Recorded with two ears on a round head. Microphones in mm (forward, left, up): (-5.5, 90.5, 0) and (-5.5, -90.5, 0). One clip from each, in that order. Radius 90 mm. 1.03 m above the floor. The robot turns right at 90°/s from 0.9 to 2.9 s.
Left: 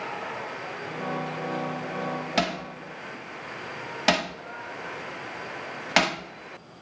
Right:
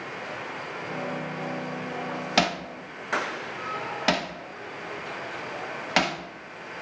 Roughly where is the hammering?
Centre.